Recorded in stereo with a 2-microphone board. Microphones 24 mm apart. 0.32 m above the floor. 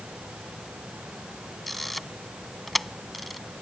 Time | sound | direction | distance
1.7 | a camera shutter | centre (ahead or behind) | ?